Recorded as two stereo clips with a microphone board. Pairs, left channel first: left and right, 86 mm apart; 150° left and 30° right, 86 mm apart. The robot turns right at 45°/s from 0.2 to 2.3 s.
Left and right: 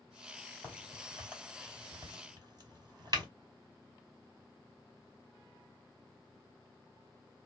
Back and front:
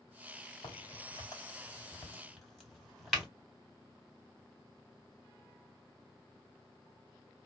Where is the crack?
160° left, 2.5 m; by 3.3 s 125° right, 2.5 m.